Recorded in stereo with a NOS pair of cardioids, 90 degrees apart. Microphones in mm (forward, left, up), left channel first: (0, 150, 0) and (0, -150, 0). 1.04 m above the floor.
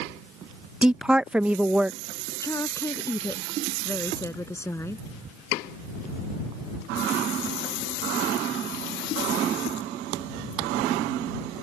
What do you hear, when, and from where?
0.8 s a woman speaking: 5° right
2.4 s a woman speaking: 10° left